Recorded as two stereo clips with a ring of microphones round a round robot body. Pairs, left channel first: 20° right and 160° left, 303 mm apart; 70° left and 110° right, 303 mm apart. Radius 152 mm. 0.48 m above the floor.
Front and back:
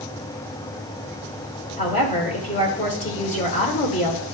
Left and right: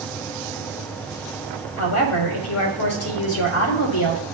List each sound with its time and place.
1.8 s a woman speaking: 40° left, 1.9 m